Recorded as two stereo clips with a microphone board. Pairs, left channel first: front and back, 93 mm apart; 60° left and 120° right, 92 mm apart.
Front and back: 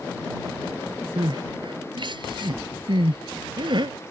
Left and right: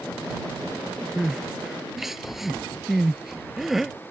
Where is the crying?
155° left.